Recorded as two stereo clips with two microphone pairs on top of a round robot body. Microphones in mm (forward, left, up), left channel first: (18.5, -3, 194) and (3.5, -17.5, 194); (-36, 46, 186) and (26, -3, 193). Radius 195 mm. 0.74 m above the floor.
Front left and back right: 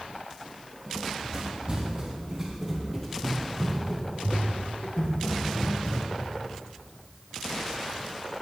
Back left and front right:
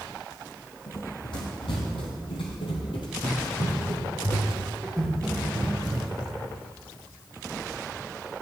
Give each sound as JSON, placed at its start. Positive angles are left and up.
{"t": 0.9, "sound": "running footsteps", "azimuth_deg": 170, "distance_m": 2.5}